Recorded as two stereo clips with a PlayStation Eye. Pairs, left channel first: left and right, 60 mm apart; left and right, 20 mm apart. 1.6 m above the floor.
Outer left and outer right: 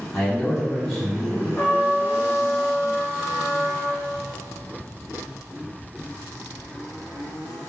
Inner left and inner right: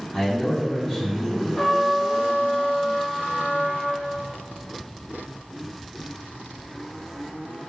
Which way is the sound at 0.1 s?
5° left (ahead or behind).